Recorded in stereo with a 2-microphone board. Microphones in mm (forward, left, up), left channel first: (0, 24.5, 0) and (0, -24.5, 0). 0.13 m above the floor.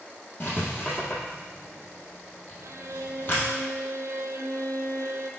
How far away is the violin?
About 0.6 m.